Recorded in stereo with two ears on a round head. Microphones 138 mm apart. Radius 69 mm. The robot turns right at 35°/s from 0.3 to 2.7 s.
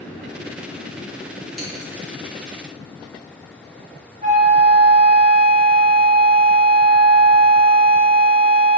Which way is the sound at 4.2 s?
45° right (ahead or behind).